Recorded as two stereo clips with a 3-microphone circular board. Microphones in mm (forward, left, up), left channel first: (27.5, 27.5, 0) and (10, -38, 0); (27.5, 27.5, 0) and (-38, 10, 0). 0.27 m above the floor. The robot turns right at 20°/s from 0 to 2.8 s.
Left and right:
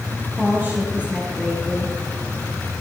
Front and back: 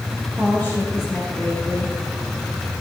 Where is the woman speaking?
50° right, 5 m; by 1.9 s 20° right, 5 m.